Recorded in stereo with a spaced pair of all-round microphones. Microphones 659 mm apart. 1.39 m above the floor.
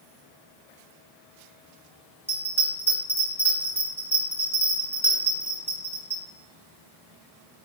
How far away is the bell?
About 0.8 m.